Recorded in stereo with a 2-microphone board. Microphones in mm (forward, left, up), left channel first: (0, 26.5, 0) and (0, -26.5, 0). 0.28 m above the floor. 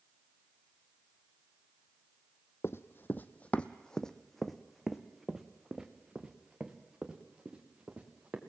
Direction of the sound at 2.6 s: 60° left (ahead or behind).